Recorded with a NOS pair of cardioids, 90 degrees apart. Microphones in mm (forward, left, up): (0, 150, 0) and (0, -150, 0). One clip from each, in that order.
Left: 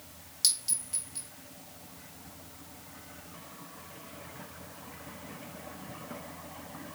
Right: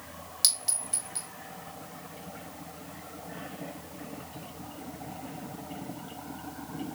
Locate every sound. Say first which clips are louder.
0.4 s a clink: right 2 dB; 30° right, 2.0 m